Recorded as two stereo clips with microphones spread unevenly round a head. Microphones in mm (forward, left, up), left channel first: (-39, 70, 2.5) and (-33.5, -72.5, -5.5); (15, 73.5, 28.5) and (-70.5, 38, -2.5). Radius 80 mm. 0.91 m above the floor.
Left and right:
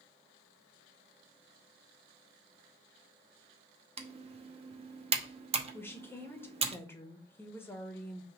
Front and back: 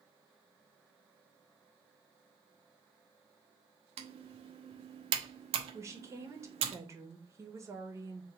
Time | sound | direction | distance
4.0 | typing on a keyboard | 135° right | 0.9 m
5.7 | a woman speaking | 165° left | 1.3 m